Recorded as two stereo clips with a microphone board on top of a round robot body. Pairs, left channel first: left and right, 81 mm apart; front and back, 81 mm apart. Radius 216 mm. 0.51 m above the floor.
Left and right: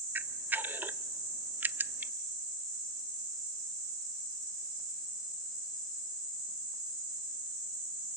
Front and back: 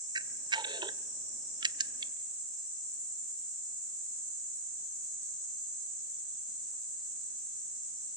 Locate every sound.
0.1 s a camera shutter: 160° right, 0.6 m